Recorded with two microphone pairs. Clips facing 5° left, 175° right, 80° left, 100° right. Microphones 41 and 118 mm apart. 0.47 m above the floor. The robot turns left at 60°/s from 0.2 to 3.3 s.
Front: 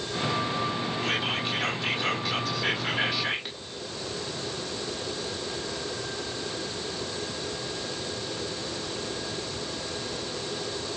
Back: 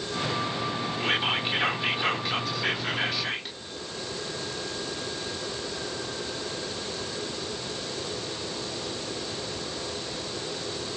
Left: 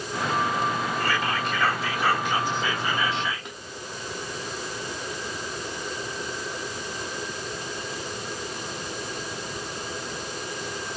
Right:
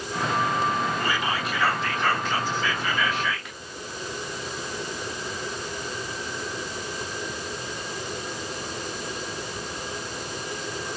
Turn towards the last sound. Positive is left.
turn(degrees=70)